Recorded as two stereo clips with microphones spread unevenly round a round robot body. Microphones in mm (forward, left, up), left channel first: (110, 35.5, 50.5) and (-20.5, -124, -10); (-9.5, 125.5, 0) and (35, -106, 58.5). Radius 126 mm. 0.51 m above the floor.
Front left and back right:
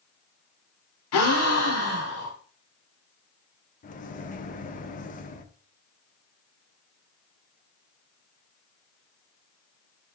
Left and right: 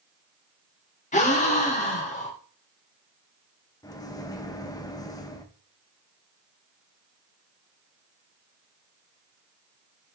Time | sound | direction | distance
1.1 | a gasp | 50° left | 2 m
3.8 | a microwave | 95° left | 0.9 m